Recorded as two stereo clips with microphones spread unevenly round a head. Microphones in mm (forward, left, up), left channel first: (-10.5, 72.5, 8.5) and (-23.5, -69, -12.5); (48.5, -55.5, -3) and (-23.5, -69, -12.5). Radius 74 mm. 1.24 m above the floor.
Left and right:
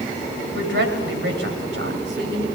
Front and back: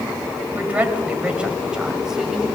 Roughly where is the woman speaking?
Right.